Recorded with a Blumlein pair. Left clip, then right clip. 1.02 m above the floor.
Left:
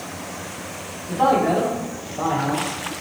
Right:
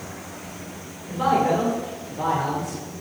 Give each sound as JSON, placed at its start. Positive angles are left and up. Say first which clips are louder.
{"t": 1.1, "sound": "a man speaking", "louder": "left 2 dB", "azimuth_deg": 35, "distance_m": 2.5}